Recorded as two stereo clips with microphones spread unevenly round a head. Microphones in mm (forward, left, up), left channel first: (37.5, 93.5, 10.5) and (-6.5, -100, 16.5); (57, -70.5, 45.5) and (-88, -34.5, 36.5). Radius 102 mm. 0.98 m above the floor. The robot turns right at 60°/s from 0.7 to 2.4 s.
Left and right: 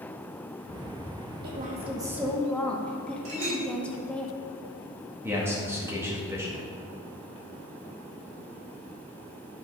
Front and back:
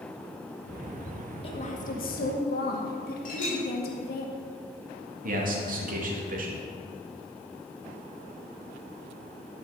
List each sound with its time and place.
1.4 s a woman speaking: 65° right, 1.7 m; by 4.2 s 5° right, 1.7 m
3.2 s a clink: 45° right, 4 m
5.2 s a man speaking: straight behind, 1.8 m